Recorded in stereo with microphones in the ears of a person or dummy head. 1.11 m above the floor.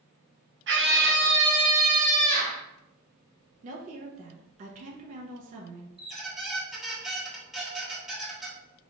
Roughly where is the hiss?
I don't hear a hiss.